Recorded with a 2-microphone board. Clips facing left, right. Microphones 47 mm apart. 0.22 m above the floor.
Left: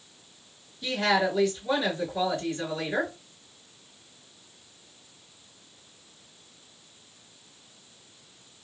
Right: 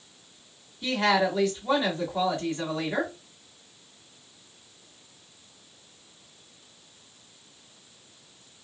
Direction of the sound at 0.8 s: 40° right (ahead or behind).